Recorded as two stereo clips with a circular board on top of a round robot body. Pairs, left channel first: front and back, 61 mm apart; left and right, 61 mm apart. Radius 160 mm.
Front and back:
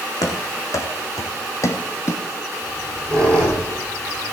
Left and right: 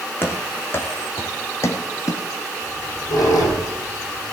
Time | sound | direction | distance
0.2 | running footsteps | 30° left | 2.5 m
2.6 | a squeak | 70° left | 9 m